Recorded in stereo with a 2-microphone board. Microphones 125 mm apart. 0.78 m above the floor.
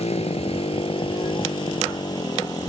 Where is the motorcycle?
55° left (ahead or behind); by 2.7 s 30° left (ahead or behind).